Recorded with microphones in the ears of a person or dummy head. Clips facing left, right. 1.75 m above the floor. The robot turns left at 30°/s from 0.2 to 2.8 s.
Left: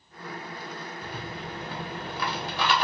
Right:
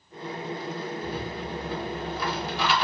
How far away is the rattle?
About 1.2 m.